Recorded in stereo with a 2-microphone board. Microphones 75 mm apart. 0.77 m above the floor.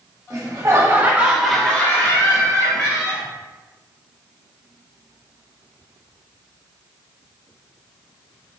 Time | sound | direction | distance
0.3 | laughter | 50° right (ahead or behind) | 1.4 m